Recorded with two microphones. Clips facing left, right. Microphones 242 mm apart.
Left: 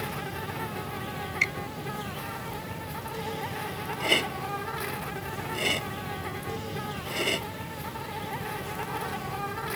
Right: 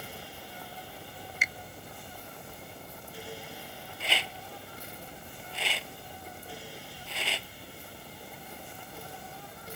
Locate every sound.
0.0 s an insect: 80° left
1.4 s a finger snap: 5° right (ahead or behind)
4.0 s a rattle: 50° left (ahead or behind)